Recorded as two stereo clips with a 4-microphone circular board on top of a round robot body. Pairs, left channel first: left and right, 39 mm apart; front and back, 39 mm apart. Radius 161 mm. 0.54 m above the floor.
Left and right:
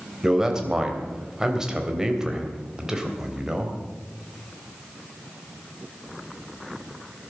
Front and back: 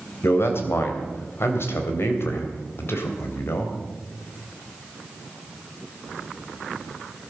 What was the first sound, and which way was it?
A man speaking, 15° right.